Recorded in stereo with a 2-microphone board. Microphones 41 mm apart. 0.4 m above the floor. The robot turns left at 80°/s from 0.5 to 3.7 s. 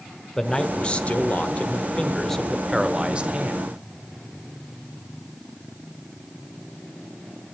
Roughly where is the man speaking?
Behind.